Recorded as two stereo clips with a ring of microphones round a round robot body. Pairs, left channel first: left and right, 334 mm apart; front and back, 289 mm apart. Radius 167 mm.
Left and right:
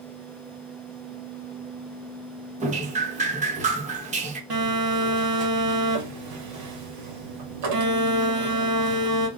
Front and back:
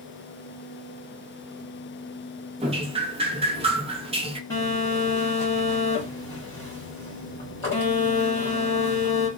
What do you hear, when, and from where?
2.6 s dripping: 135° right, 0.7 m
4.5 s a phone buzzing: 80° right, 1.5 m